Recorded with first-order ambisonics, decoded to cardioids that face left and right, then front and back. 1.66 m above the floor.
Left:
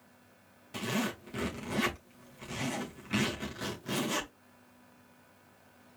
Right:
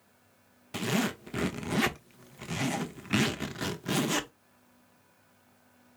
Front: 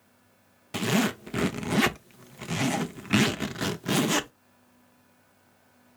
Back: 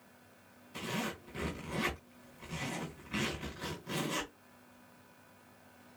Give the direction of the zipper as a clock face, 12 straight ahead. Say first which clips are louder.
Right 3 dB, front 11 dB; 1 o'clock.